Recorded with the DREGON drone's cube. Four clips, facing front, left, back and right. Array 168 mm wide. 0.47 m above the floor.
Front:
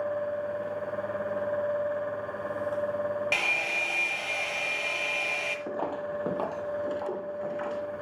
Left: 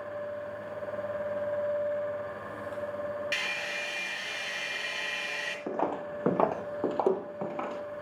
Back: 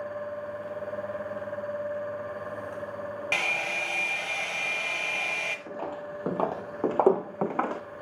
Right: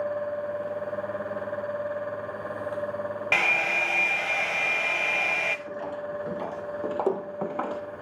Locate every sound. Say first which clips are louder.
3.3 s a hair dryer: right 9 dB, even; 90° right, 1.3 m
5.7 s footsteps: left 1 dB, front 7 dB; 70° left, 1.5 m; by 7.8 s 160° right, 2 m